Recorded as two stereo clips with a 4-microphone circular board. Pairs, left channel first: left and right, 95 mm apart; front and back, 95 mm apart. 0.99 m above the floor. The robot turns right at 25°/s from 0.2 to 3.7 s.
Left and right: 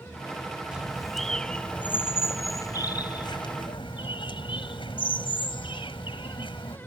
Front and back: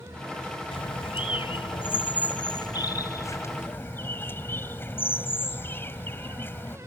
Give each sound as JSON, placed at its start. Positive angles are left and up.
{"t": 0.7, "sound": "a bird", "azimuth_deg": -10}